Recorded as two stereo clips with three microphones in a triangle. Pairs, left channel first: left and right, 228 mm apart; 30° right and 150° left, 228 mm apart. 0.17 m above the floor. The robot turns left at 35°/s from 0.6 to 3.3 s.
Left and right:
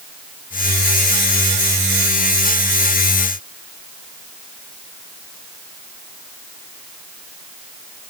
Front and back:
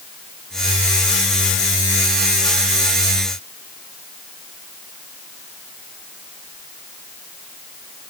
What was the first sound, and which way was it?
Only background noise.